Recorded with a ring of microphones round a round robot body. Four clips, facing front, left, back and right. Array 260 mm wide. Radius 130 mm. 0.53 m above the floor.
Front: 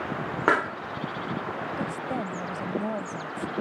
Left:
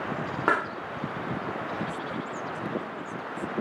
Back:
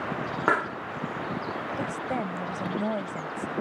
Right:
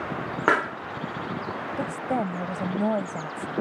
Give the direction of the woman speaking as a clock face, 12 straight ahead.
3 o'clock.